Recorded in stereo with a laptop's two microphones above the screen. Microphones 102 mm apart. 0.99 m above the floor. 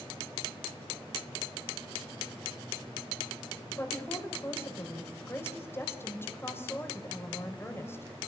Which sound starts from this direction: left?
A woman speaking, at 3.7 s.